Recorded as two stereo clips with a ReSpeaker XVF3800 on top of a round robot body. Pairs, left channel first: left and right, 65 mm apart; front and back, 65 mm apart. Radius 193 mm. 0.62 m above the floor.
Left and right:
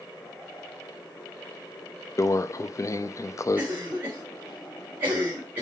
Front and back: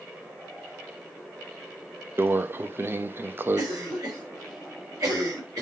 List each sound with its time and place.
2.2 s a microwave: 125° left, 0.7 m
3.6 s a cough: 155° right, 4 m